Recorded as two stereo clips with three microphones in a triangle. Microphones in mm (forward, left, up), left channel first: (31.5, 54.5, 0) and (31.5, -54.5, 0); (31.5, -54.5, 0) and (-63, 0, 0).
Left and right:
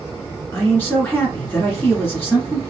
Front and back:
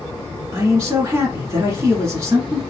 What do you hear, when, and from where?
0.5 s a man speaking: 135° left, 1.9 m